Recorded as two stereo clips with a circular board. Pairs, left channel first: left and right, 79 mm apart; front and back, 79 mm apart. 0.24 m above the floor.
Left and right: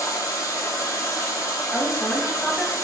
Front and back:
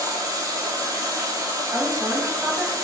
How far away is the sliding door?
I don't hear a sliding door.